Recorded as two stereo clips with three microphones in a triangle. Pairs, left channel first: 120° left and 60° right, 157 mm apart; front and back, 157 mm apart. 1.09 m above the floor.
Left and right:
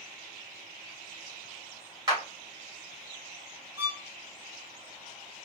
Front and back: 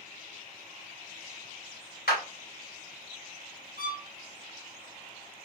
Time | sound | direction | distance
2.1 | a clap | 10° left | 3 m
3.8 | a violin | 20° left | 2.5 m